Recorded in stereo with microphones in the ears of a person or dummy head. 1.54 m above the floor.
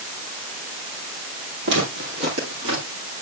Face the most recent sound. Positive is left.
turn(degrees=-55)  # may be behind; listen again after turning